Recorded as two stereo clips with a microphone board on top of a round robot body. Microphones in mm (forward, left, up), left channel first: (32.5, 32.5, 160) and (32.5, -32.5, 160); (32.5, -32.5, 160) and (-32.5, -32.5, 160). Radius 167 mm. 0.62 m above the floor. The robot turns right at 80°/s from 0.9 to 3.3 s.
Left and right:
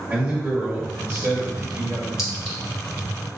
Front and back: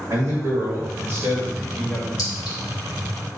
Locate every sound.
0.1 s a man speaking: 145° right, 2 m; by 2.1 s 50° right, 2 m
2.2 s a clink: 10° right, 2.0 m; by 2.6 s 20° left, 2.0 m